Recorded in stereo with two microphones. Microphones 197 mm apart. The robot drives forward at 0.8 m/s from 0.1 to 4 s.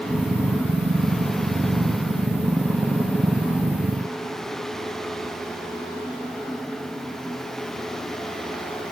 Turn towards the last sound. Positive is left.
No sound to turn to.